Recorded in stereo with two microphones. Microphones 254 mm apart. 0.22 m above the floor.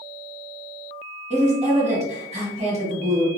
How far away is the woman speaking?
About 1.2 m.